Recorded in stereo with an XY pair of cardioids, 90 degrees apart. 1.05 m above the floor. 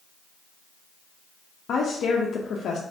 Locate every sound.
1.7 s a woman speaking: 65° left, 0.7 m